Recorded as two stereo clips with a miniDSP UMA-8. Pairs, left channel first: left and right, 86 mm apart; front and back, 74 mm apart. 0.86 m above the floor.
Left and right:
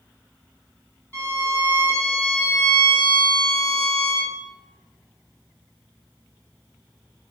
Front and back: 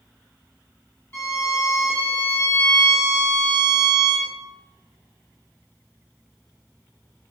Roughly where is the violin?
Ahead left.